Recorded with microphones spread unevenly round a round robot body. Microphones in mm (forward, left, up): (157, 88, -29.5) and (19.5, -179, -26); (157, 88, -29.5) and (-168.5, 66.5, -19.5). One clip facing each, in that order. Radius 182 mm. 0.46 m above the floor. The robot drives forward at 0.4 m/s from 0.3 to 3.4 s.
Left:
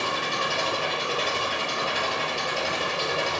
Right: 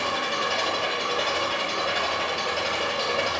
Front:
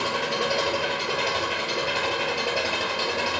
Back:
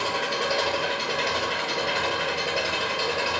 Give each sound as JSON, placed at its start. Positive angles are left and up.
{"t": 0.0, "sound": "an engine running", "azimuth_deg": 80, "distance_m": 6.5}